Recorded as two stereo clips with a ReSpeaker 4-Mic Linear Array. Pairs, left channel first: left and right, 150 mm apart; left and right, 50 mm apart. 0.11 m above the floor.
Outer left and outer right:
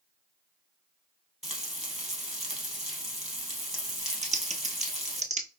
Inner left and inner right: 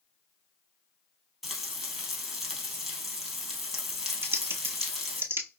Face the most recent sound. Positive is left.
turn(degrees=-50)  # may be behind; listen again after turning